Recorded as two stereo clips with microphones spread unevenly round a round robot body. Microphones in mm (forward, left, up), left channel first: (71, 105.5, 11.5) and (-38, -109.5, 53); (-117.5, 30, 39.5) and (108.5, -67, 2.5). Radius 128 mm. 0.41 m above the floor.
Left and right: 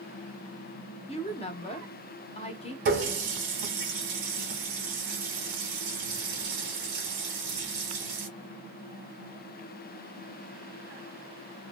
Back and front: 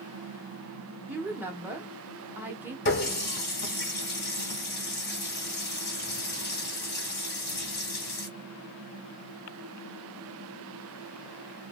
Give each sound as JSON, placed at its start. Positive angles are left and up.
{"t": 1.1, "sound": "a woman speaking", "azimuth_deg": 40, "distance_m": 0.9}
{"t": 2.9, "sound": "a running tap", "azimuth_deg": -160, "distance_m": 1.9}